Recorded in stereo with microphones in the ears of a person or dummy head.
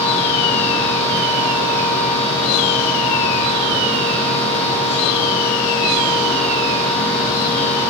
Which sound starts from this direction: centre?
A machine running, at 0.0 s.